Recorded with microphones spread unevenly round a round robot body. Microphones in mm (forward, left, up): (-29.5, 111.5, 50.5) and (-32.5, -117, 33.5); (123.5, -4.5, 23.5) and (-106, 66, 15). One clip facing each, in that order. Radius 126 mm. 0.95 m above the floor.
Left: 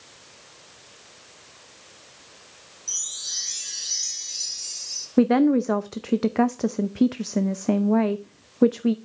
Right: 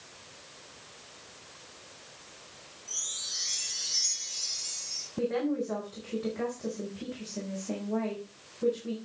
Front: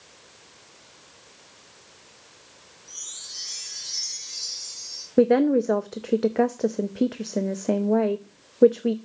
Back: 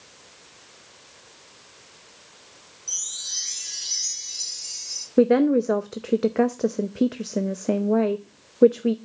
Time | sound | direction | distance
2.9 | a chime | 120° left | 2 m
5.2 | a woman speaking | 75° left | 0.6 m